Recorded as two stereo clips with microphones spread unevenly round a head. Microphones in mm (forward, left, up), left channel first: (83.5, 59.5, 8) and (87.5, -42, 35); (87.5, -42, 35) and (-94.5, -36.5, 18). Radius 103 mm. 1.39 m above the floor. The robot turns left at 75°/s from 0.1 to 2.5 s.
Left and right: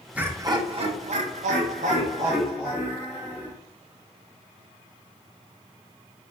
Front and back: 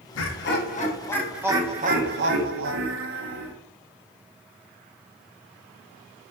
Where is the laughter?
5° right, 1.3 m; by 3.5 s 175° left, 1.3 m.